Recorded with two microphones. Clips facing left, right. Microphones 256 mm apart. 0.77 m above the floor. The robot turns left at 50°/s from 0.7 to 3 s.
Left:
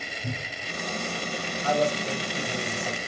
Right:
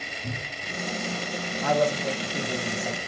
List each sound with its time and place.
0.2 s a cupboard door: 5° left (ahead or behind), 1.9 m
1.6 s a man speaking: 90° right, 1.9 m; by 3.1 s 160° right, 1.9 m